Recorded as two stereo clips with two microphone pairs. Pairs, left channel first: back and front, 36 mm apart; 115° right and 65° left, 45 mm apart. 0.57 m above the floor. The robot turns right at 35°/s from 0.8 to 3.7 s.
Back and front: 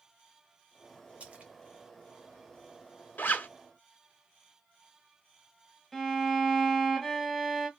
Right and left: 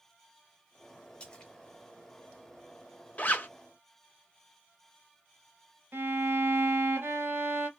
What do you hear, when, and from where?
1.2 s a splash: 50° right, 0.7 m; by 1.5 s 40° right, 0.7 m
3.2 s a zipper: 170° right, 0.6 m; by 3.5 s 160° right, 0.6 m
5.9 s a violin: 95° left, 0.8 m